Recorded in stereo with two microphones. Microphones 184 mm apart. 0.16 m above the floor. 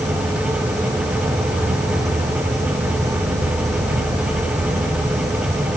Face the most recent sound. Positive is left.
turn(degrees=-35)  # may be behind; listen again after turning